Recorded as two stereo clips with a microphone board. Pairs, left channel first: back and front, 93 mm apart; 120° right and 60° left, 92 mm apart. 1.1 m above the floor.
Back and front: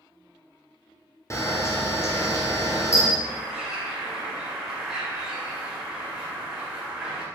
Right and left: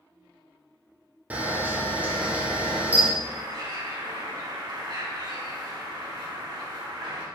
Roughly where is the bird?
Left.